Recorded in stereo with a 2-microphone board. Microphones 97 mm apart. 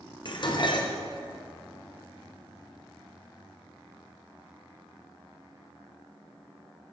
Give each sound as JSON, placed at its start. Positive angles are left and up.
{"t": 0.2, "sound": "dishes clattering", "side_deg": 50, "distance_m": 0.6}